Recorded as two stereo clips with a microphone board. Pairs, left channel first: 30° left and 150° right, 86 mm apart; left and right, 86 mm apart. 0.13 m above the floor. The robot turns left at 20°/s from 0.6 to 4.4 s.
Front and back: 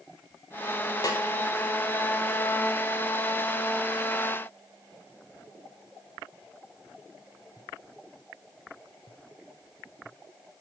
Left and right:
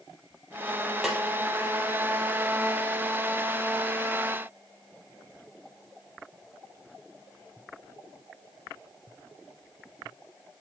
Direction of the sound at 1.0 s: 5° right.